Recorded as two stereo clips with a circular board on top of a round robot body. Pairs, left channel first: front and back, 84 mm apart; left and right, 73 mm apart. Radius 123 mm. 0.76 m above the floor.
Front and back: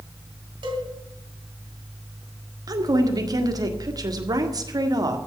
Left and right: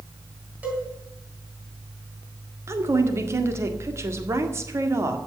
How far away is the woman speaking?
About 1.9 m.